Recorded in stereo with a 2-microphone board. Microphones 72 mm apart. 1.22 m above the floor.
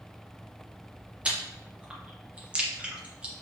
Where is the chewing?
15° right (ahead or behind), 0.9 m.